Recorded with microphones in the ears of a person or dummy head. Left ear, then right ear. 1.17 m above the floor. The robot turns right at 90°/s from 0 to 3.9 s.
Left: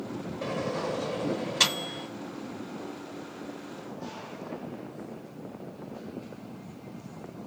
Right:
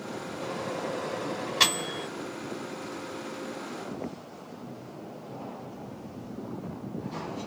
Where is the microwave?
40° left (ahead or behind), 4.5 m; by 2.1 s 10° right (ahead or behind), 4.5 m.